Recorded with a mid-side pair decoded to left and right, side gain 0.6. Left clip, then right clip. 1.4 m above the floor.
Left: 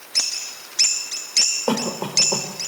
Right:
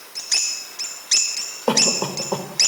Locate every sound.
1.7 s a cough: 10° right, 4.5 m